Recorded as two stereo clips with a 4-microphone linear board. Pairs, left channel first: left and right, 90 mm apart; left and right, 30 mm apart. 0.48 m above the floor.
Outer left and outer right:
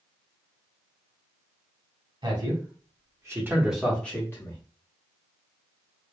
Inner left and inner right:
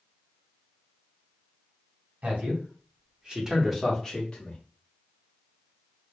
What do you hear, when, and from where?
2.2 s a man speaking: 60° right (ahead or behind), 1.6 m; by 4.6 s 35° left (ahead or behind), 1.1 m